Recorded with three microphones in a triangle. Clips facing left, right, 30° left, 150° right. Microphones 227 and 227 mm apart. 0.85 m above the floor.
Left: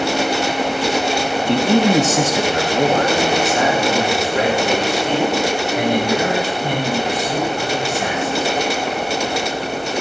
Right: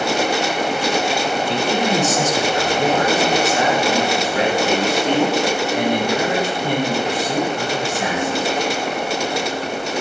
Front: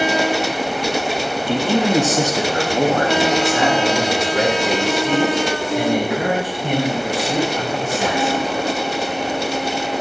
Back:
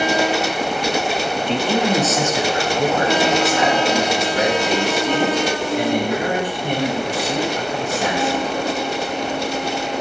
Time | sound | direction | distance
1.5 | a man speaking | 110° left | 0.8 m